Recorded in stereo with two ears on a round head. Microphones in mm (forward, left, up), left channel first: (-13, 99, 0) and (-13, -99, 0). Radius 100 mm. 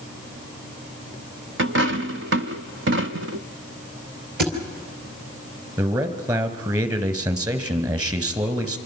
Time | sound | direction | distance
1.6 | a dropped coin | 60° right (ahead or behind) | 0.9 m
4.4 | a thud | 50° right (ahead or behind) | 3 m
5.8 | a man speaking | 20° right (ahead or behind) | 2 m